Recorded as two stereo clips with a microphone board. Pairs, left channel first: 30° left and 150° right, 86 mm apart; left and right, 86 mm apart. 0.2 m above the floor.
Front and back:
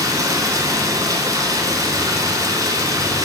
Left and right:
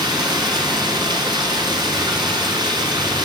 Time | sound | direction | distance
0.0 | running water | 105° right | 2 m